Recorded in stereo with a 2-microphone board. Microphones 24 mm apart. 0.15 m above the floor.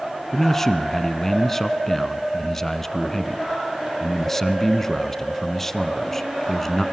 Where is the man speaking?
20° left (ahead or behind), 1.2 m.